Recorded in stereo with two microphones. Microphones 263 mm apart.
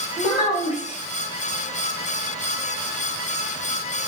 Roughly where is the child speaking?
Left.